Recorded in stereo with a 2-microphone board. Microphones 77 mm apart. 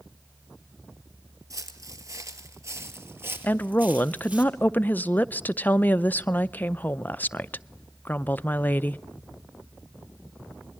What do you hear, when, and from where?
1.5 s footsteps: 45° right (ahead or behind), 1.7 m; by 4.4 s 20° right (ahead or behind), 2.5 m
3.4 s a woman speaking: 25° left (ahead or behind), 0.5 m